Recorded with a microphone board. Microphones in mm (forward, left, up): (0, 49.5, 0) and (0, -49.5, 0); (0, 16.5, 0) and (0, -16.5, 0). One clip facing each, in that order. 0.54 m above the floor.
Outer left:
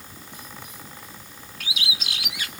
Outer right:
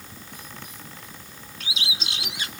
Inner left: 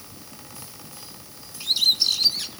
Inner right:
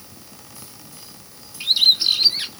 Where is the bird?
30° right (ahead or behind), 1.3 m.